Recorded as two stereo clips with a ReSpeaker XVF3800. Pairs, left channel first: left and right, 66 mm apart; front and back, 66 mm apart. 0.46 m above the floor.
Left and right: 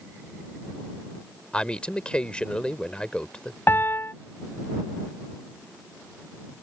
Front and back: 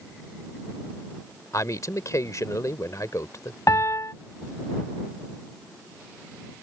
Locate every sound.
1.5 s a man speaking: 15° left
3.7 s a piano: 35° left